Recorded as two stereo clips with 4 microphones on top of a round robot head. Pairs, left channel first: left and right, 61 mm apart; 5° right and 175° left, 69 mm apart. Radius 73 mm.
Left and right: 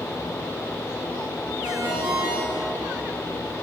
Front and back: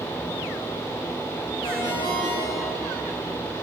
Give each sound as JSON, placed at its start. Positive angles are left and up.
{"t": 1.6, "sound": "a ringtone", "azimuth_deg": -45, "distance_m": 7.0}